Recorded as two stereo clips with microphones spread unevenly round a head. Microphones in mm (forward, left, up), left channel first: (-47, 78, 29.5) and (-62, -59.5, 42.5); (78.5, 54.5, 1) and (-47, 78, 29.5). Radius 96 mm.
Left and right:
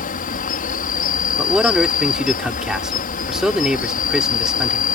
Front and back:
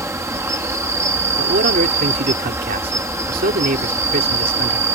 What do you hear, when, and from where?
0.0 s an insect: 100° left
1.4 s a man speaking: straight behind